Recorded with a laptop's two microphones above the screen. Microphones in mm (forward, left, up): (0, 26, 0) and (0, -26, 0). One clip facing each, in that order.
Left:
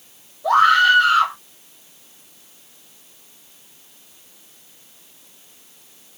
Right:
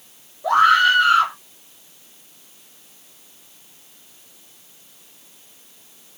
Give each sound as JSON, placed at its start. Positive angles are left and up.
{"t": 0.4, "sound": "a scream", "side_deg": -30, "distance_m": 3.5}